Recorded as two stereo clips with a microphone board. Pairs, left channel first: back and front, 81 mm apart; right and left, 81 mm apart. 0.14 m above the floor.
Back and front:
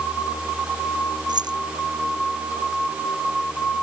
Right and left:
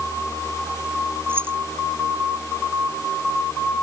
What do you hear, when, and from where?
1.3 s keys jangling: 25° left